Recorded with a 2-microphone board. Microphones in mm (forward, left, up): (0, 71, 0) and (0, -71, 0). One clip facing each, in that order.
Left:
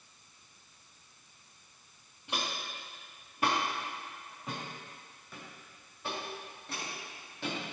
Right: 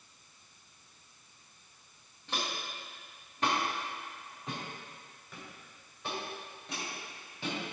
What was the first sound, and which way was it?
Footsteps, 15° left (ahead or behind).